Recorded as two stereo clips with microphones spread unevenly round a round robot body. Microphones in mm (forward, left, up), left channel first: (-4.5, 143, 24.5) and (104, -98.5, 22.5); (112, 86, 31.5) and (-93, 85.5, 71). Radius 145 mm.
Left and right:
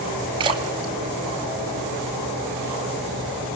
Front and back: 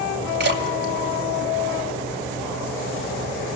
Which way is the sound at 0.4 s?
135° right.